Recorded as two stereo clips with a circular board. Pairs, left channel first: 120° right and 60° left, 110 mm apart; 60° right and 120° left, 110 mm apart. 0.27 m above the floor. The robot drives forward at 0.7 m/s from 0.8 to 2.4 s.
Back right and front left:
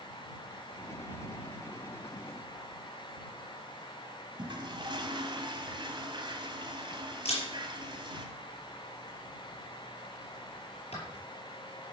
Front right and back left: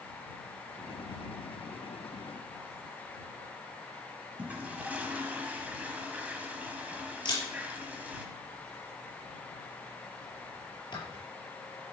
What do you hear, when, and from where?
4.4 s a toilet flushing: 50° left, 2.0 m
7.2 s a camera shutter: 100° right, 6 m